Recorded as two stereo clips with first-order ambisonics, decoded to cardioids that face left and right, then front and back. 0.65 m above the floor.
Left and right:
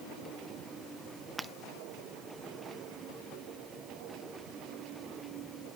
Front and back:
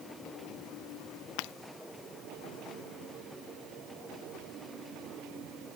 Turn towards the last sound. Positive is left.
turn(degrees=-10)